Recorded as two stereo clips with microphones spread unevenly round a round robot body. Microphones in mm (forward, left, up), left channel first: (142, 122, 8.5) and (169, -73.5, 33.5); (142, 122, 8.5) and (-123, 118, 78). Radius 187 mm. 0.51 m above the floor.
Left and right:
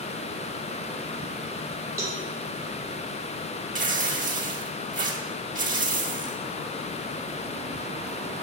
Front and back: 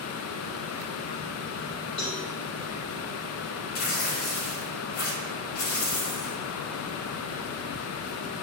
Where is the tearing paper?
30° right, 1.4 m.